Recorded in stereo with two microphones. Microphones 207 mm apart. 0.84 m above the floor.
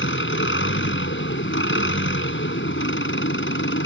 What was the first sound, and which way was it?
An engine running, 70° left (ahead or behind).